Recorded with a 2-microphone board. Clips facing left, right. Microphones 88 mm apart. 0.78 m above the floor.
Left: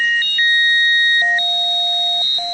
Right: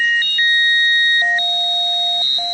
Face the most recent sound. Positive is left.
No sound to turn to.